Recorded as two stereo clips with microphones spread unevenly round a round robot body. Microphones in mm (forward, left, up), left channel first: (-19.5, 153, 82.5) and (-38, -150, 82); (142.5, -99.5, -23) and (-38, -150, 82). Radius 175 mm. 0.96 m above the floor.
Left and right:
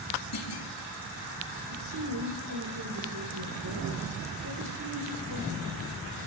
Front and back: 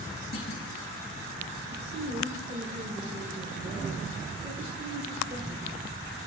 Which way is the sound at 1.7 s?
115° right.